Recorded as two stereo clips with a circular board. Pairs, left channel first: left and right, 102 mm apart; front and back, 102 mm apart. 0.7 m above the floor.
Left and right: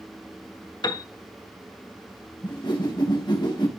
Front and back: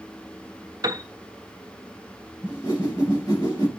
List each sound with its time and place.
0.8 s a piano: 130° left, 1.0 m
2.4 s a whoosh: 45° left, 4 m